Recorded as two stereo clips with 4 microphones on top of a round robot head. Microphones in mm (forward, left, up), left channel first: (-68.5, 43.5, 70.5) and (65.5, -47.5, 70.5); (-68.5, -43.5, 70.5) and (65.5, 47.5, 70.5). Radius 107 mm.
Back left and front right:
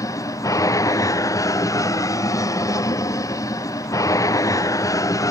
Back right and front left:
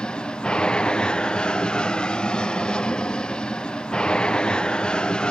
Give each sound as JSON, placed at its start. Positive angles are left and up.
{"t": 0.0, "sound": "an aircraft", "azimuth_deg": 140}